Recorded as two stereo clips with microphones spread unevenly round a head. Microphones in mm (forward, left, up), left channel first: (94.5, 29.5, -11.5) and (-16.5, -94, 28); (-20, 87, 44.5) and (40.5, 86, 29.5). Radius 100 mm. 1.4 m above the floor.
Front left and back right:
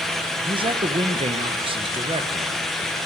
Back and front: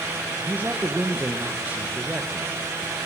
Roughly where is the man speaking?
Right.